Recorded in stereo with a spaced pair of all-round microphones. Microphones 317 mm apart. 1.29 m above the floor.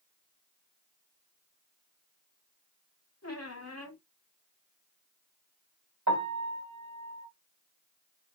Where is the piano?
60° right (ahead or behind), 2 m.